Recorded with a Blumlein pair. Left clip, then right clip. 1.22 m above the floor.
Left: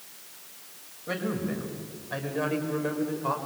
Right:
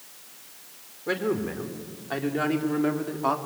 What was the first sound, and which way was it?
A man speaking, 55° right.